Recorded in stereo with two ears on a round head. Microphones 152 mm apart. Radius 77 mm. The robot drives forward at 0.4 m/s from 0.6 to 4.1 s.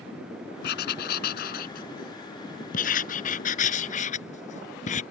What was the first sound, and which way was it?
Writing, 70° left (ahead or behind).